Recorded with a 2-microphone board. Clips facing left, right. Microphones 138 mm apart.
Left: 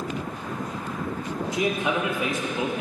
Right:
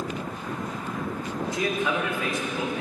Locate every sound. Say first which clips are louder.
1.5 s a man speaking: left 2 dB; 20° left (ahead or behind), 1.6 m